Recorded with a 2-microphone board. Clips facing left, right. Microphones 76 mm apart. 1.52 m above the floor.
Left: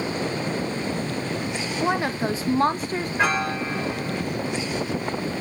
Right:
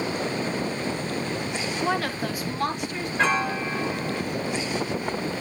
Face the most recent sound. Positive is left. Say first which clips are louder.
# right 1 dB
turn(degrees=5)  # may be behind; listen again after turning